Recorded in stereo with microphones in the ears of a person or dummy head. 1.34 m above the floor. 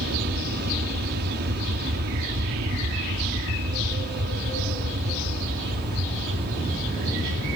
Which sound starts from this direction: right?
An aircraft, at 0.0 s.